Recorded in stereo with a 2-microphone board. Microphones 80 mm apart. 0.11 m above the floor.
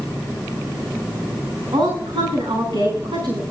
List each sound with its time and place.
1.7 s a woman speaking: 80° right, 8 m